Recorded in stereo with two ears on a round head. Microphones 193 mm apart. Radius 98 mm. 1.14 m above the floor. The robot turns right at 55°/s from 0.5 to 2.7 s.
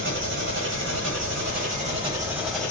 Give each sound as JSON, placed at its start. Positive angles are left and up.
{"t": 0.0, "sound": "an engine running", "azimuth_deg": -110, "distance_m": 1.6}